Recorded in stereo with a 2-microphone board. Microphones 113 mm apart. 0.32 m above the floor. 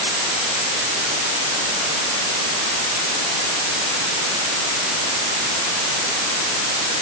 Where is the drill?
I don't hear a drill.